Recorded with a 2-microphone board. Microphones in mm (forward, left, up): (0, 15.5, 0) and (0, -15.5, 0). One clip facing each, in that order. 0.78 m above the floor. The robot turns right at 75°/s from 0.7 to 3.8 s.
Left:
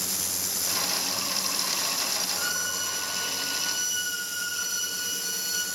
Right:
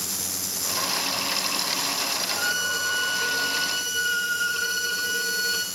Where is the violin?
150° right, 1.8 m; by 5.7 s 45° right, 1.8 m.